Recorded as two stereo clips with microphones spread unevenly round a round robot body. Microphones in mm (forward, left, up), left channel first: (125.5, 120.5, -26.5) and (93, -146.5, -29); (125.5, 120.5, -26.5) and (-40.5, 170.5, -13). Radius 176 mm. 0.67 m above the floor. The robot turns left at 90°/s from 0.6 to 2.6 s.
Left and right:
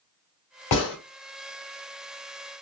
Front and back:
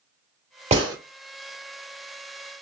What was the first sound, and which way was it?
A gunshot, 110° left.